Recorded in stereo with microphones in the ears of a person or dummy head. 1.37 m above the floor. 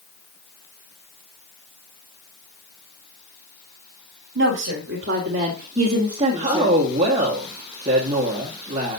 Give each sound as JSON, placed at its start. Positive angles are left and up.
{"t": 4.3, "sound": "a woman speaking", "side_deg": -65, "distance_m": 2.0}
{"t": 6.4, "sound": "a woman speaking", "side_deg": -30, "distance_m": 1.5}